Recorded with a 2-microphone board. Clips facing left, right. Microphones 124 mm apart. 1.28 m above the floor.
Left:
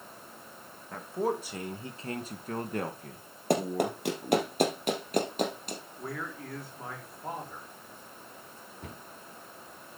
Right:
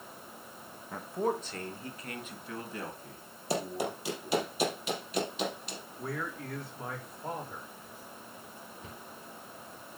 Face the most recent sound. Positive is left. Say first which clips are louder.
# left 6 dB
turn(degrees=65)  # may be behind; listen again after turning